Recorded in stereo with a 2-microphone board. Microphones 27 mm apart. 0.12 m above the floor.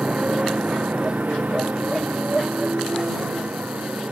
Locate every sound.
0.0 s a motorcycle: 40° right (ahead or behind); by 4.1 s 75° right (ahead or behind)